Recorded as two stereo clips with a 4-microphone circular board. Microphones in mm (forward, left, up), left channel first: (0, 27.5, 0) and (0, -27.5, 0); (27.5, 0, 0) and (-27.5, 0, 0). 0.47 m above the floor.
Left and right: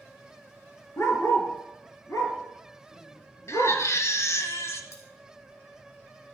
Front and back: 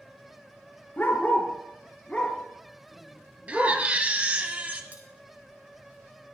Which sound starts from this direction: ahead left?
A dog barking, at 1.0 s.